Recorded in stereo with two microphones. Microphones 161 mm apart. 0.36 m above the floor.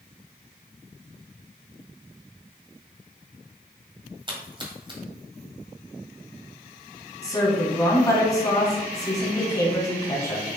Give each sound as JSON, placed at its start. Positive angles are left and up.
{"t": 4.3, "sound": "a splash", "side_deg": -30, "distance_m": 1.5}
{"t": 7.2, "sound": "a woman speaking", "side_deg": 20, "distance_m": 3.0}